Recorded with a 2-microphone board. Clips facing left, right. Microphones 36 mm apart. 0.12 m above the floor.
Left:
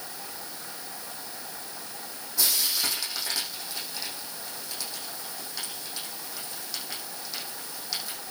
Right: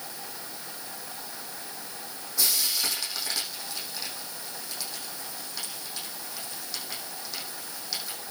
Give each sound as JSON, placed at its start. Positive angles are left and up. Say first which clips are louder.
{"t": 2.4, "sound": "frying", "louder": "even", "side_deg": 5, "distance_m": 7.0}